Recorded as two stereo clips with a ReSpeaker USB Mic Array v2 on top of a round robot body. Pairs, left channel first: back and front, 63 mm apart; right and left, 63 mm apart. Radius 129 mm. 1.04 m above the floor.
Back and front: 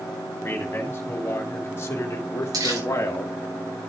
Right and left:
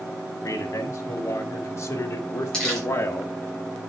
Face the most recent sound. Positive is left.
turn(degrees=-10)